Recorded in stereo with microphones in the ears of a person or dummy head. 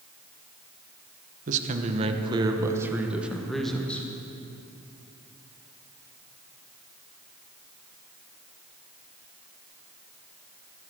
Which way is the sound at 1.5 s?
45° right (ahead or behind).